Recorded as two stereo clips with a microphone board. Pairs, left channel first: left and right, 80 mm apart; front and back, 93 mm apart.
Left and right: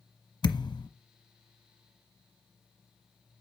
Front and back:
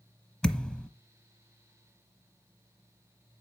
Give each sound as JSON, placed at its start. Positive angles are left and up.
{"t": 0.4, "sound": "a thud", "azimuth_deg": 80, "distance_m": 0.9}